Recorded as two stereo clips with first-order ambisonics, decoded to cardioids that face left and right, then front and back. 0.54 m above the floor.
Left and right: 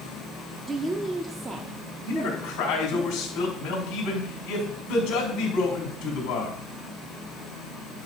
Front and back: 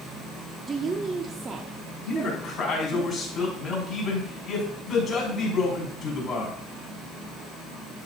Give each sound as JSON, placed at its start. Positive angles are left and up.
{"t": 0.7, "sound": "a woman speaking", "azimuth_deg": -145, "distance_m": 0.6}
{"t": 2.1, "sound": "a man speaking", "azimuth_deg": 65, "distance_m": 3.5}